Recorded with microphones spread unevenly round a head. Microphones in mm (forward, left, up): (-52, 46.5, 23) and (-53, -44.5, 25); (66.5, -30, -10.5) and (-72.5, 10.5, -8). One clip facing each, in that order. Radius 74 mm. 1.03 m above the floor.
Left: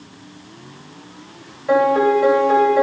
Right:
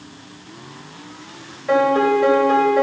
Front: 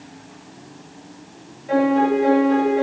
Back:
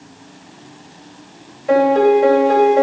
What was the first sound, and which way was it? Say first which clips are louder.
A piano: left 1 dB, back 5 dB; 175° left.